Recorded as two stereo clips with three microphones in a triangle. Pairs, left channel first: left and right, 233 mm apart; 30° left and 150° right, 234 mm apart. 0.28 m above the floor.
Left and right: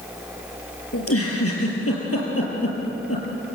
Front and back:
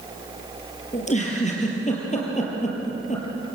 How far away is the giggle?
About 5 m.